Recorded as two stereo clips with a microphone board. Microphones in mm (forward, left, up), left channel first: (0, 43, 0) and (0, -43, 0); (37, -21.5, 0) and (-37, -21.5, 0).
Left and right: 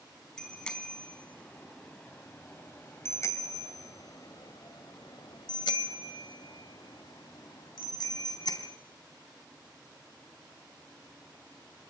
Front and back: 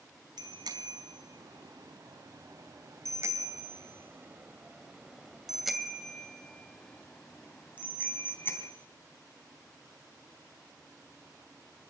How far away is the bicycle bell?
About 4 m.